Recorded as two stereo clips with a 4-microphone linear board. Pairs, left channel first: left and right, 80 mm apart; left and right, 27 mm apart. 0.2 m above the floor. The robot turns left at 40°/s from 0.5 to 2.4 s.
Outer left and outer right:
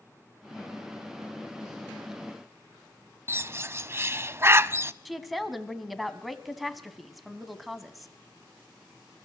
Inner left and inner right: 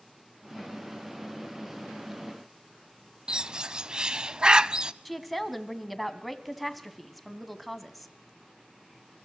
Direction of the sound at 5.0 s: Centre (ahead or behind).